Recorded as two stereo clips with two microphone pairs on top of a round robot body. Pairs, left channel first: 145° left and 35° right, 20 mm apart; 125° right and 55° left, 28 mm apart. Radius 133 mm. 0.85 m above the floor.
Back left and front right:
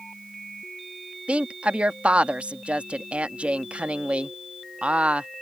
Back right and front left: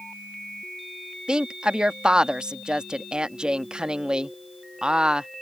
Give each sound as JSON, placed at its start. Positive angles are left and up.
{"t": 1.3, "sound": "a woman speaking", "azimuth_deg": -10}